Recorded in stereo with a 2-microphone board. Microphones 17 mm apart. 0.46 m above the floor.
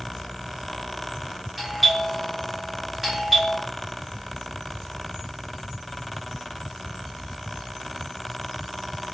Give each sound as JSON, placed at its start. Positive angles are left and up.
{"t": 1.6, "sound": "a doorbell", "side_deg": 5, "distance_m": 1.2}